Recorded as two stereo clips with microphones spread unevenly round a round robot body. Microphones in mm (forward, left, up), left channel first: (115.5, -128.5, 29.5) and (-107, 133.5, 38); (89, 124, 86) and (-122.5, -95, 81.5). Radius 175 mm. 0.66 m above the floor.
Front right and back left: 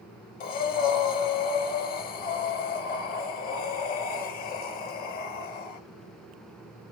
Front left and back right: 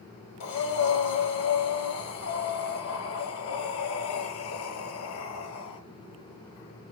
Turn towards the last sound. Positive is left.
turn(degrees=10)